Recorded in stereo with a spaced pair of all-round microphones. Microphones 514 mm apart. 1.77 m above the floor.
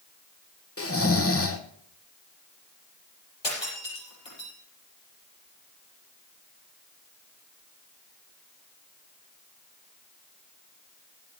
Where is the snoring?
25° left (ahead or behind), 0.9 m.